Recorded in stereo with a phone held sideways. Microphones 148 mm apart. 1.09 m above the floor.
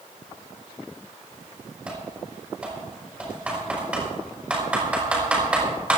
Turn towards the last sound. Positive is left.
turn(degrees=-10)  # may be behind; listen again after turning